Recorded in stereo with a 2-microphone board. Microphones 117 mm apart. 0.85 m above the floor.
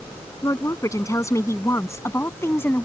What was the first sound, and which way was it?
A woman speaking, 30° left (ahead or behind).